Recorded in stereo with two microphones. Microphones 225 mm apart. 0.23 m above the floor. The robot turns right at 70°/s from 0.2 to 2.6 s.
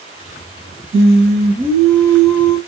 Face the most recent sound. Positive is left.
turn(degrees=25)